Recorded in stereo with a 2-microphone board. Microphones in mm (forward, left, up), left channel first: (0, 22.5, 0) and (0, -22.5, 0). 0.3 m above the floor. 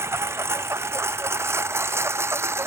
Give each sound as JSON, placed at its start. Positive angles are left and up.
{"t": 0.0, "sound": "a lawn mower", "side_deg": -75}